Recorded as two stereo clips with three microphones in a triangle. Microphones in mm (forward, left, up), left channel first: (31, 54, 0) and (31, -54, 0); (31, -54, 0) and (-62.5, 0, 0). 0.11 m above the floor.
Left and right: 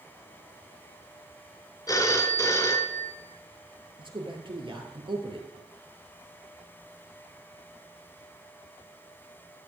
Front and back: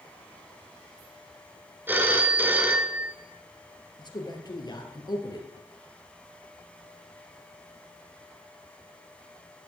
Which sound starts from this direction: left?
A phone ringing, at 1.9 s.